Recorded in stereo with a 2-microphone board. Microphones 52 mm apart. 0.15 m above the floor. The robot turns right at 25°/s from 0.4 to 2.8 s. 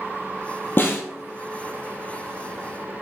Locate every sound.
0.8 s a snare drum: 45° left (ahead or behind), 0.9 m; by 1.0 s 55° left (ahead or behind), 0.9 m